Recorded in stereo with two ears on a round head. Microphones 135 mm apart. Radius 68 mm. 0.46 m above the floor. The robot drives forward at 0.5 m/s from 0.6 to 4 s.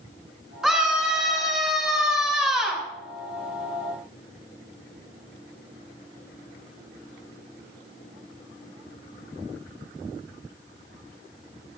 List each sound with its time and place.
0.6 s a scream: 5° right (ahead or behind), 4.5 m